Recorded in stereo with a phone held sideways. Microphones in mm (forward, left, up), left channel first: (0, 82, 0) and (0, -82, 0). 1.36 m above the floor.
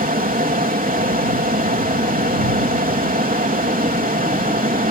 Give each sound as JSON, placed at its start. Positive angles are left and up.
{"t": 0.0, "sound": "a fan", "side_deg": -60}